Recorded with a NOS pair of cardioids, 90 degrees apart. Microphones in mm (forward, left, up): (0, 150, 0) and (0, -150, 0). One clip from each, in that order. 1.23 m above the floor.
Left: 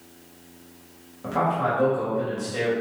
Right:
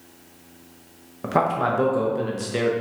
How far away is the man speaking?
About 1.0 m.